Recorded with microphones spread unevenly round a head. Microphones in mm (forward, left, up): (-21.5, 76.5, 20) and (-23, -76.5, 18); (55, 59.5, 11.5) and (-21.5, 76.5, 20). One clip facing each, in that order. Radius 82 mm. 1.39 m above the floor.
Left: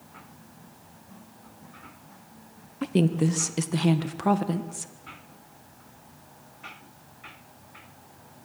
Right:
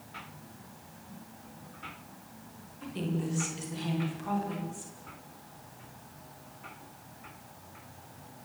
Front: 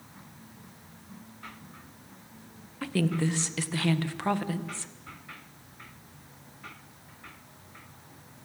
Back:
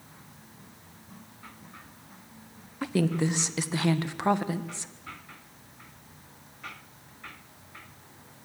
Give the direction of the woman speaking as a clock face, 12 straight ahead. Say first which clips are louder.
Left 11 dB, back 2 dB; 9 o'clock.